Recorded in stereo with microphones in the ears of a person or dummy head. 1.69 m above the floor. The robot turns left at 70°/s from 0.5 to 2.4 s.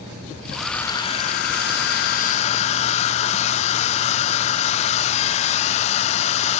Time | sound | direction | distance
0.6 | a hair dryer | 175° right | 0.8 m